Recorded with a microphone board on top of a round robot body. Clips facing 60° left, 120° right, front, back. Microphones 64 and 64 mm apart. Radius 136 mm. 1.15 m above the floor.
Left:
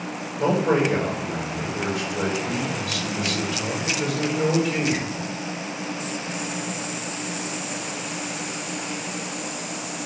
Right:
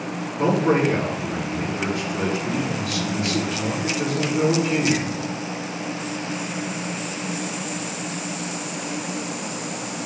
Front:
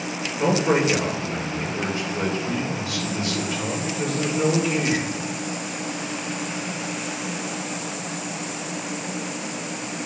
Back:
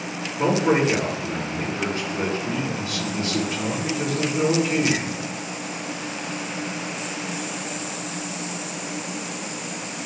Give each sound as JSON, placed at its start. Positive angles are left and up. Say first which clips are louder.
{"t": 0.4, "sound": "a man speaking", "louder": "right 1 dB, back 1 dB", "azimuth_deg": -130, "distance_m": 5.5}